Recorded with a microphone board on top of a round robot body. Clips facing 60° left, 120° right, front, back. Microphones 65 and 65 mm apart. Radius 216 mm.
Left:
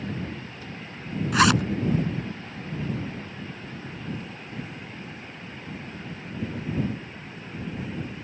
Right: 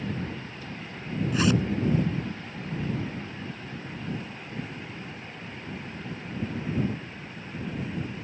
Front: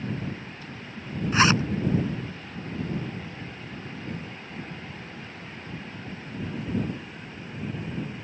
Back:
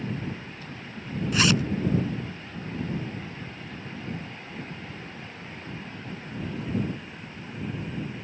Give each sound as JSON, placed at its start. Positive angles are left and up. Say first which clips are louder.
{"t": 1.3, "sound": "a zipper", "louder": "left 5 dB, front 3 dB", "azimuth_deg": 60}